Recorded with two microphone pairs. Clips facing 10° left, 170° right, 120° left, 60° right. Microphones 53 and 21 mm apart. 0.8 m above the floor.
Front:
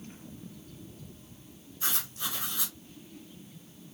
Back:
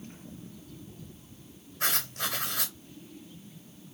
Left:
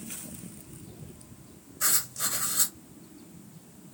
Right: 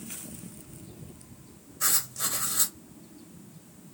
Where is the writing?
140° right, 2.5 m.